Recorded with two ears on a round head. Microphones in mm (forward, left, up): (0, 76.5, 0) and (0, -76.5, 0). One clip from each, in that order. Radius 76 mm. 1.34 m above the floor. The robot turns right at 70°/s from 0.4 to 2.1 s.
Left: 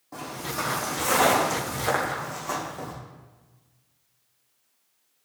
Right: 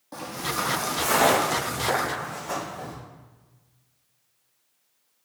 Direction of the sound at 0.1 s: 40° right (ahead or behind).